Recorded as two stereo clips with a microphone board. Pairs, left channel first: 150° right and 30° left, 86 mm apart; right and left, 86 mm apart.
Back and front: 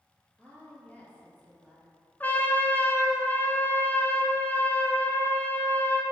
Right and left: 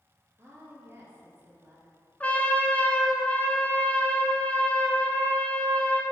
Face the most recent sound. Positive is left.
turn(degrees=-130)